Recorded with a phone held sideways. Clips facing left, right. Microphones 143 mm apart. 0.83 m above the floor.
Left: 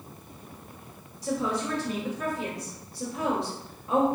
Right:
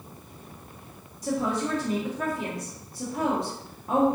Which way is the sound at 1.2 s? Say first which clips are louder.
Right 2 dB; 50° right (ahead or behind).